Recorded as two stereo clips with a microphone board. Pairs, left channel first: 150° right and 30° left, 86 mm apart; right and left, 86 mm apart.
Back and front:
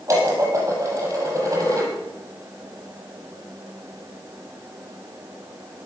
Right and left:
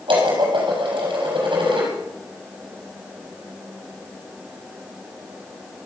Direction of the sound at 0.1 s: 85° left.